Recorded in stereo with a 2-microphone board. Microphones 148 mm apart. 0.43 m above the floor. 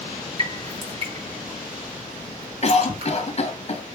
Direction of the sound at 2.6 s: 45° left (ahead or behind).